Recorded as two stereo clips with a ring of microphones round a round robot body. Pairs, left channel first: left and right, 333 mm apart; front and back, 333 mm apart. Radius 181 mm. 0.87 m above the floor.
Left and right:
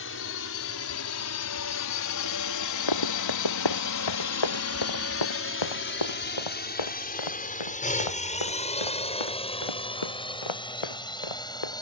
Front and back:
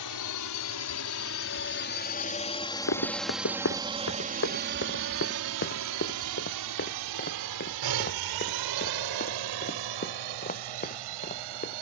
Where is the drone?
35° left; by 11.8 s 170° left.